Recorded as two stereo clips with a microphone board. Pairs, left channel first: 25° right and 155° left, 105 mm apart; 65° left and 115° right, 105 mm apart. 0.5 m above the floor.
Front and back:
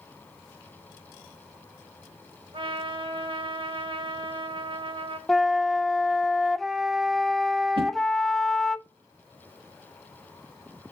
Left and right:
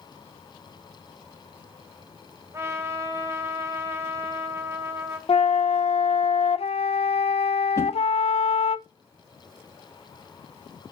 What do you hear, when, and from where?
2.5 s a trumpet: 175° right, 1.7 m
5.3 s a flute: 65° left, 0.5 m
7.8 s a whoosh: 130° left, 1.3 m